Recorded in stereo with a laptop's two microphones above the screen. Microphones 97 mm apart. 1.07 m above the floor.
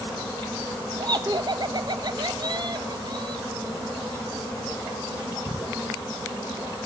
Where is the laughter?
50° right (ahead or behind), 0.9 m.